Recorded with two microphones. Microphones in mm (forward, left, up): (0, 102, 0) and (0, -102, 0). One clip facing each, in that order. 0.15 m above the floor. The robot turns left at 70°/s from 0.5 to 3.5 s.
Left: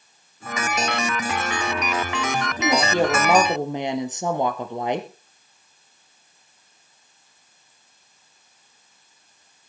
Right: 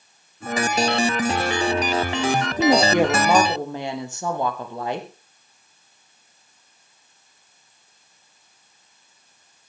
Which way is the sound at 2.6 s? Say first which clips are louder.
Right 4 dB; 135° right.